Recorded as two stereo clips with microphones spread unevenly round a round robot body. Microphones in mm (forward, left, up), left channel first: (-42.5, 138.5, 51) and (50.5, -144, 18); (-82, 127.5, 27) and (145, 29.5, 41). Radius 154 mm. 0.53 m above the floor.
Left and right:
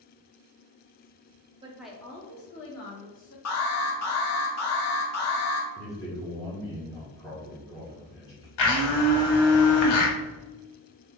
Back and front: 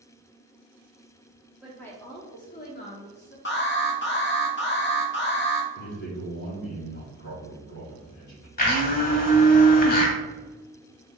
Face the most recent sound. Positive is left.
turn(degrees=100)